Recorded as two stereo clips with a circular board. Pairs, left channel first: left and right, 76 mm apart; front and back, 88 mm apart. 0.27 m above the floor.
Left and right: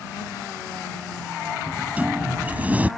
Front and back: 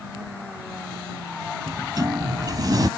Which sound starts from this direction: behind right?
A sliding door, at 1.7 s.